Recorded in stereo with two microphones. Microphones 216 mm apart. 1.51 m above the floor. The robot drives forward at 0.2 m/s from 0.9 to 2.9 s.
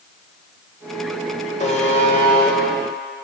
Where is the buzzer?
35° left (ahead or behind), 1.0 m; by 3.2 s 25° left (ahead or behind), 1.2 m.